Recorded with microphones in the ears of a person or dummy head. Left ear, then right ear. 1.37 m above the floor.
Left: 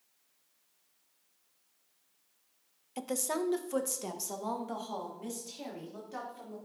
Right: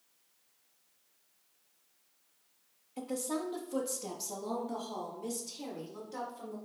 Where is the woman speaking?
75° left (ahead or behind), 0.8 m; by 6.6 s 35° left (ahead or behind), 2.5 m.